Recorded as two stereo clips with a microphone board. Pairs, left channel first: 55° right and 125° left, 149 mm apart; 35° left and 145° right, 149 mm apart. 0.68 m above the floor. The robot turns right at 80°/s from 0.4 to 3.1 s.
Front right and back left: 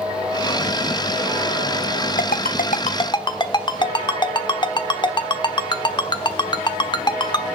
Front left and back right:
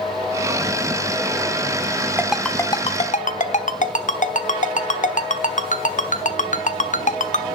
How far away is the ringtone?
About 1.1 m.